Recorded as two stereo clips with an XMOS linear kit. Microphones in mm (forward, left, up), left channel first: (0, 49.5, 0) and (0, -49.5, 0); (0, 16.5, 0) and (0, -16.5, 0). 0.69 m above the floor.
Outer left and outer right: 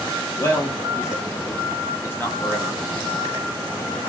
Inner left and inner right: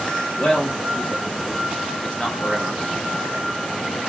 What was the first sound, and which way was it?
A man speaking, 25° left (ahead or behind).